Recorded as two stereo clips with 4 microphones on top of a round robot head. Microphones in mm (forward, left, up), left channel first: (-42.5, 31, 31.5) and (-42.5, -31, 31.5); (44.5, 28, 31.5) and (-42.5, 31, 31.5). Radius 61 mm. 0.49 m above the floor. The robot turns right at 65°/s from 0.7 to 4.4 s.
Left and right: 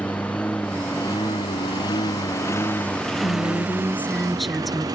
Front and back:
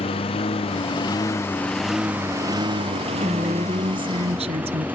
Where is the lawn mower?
15° left; by 5.0 s 105° right.